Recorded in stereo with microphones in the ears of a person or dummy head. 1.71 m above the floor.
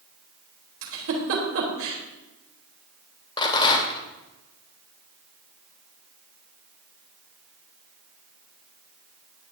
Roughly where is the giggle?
Right.